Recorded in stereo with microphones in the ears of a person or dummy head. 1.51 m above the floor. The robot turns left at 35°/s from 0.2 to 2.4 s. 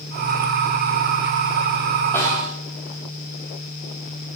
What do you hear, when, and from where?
2.1 s a snare drum: 15° left (ahead or behind), 4 m; by 2.5 s 25° left (ahead or behind), 4 m